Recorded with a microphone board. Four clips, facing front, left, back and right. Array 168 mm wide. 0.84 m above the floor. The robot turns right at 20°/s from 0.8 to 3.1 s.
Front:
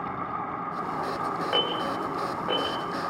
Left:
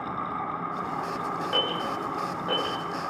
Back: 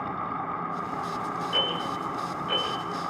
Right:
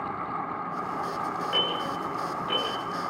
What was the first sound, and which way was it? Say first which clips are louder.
An alarm: left 1 dB, front 2 dB; 15° left.